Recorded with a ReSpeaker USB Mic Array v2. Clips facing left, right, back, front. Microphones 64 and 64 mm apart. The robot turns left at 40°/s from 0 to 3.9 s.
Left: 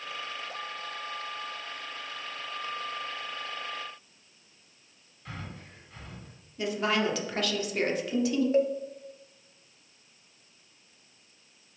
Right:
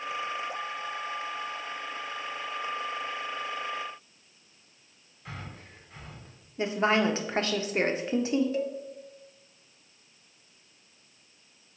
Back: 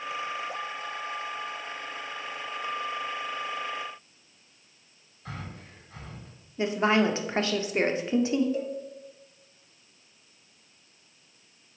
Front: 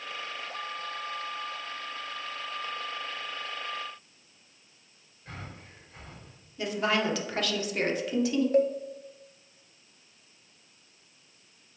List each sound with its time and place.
5.2 s breathing: 165° right, 2 m
6.6 s a woman speaking: 135° right, 0.8 m
8.5 s a cowbell: 35° left, 0.6 m